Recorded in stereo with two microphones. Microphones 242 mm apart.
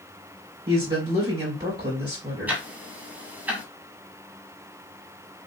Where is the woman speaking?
40° right (ahead or behind), 3.5 m.